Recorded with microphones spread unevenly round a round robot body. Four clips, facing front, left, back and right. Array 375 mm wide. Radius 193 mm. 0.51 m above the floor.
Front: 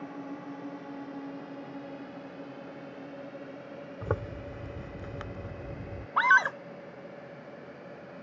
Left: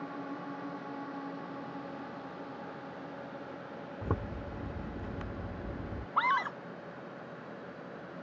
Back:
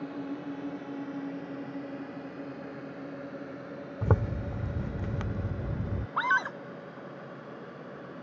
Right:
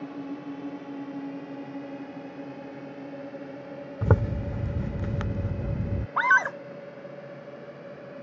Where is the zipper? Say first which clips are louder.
Right 11 dB, back 4 dB; 105° right.